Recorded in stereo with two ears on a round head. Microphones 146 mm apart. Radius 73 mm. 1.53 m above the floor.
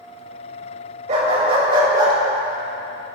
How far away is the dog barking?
About 3 m.